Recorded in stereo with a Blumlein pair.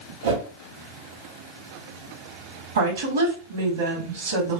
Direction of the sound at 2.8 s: 65° right.